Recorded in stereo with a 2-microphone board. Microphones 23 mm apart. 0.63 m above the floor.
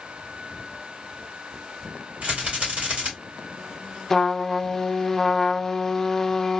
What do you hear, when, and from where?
2.2 s a rattle: 65° right (ahead or behind), 3 m
4.1 s a trumpet: 15° left (ahead or behind), 0.5 m